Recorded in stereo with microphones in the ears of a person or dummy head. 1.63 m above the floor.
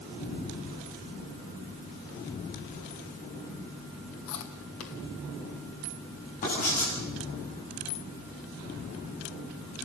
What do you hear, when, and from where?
4.3 s chewing: 55° left (ahead or behind), 2 m
6.4 s writing: 40° left (ahead or behind), 10 m